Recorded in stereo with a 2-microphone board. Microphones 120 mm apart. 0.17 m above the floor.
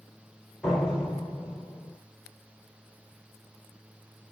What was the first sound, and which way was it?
A door slam, 5° left (ahead or behind).